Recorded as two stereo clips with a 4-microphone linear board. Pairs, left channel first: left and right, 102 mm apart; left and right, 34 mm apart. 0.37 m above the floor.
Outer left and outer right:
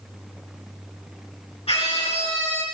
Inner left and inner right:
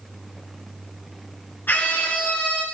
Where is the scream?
75° left (ahead or behind), 4 m.